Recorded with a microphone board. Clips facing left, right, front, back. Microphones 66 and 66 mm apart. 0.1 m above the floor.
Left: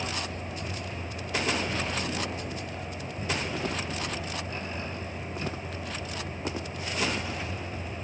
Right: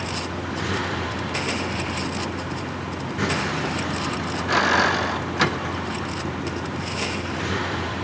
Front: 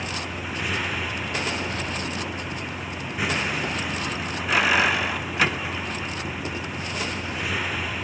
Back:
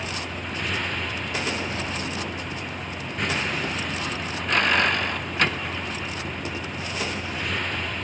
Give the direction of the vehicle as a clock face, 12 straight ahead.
3 o'clock.